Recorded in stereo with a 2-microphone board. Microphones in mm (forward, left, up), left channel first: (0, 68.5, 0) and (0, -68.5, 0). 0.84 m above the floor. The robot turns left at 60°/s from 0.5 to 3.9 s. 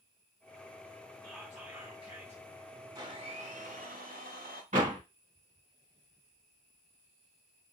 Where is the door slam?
55° right (ahead or behind), 1.6 m.